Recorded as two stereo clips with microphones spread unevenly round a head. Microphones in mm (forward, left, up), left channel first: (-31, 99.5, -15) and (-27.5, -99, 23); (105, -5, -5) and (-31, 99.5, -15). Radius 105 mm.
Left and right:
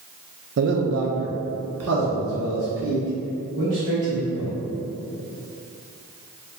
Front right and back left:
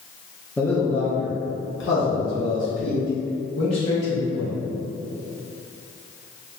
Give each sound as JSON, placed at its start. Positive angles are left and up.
{"t": 0.6, "sound": "a man speaking", "azimuth_deg": -125, "distance_m": 0.6}